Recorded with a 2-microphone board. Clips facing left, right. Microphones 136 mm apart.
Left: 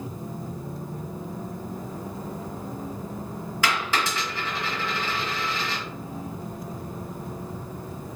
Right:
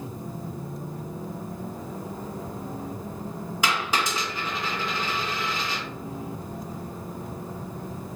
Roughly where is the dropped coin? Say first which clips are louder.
Even; centre.